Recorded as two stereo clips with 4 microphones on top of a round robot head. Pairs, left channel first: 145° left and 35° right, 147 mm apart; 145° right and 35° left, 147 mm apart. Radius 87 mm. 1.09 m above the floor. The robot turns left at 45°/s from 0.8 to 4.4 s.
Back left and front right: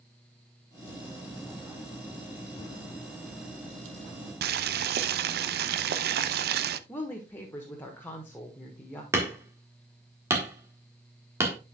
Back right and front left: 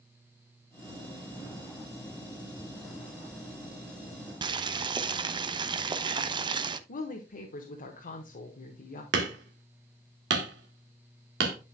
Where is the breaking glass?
I don't hear breaking glass.